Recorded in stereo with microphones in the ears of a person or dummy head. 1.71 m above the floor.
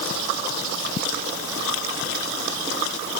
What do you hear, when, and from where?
Only background noise.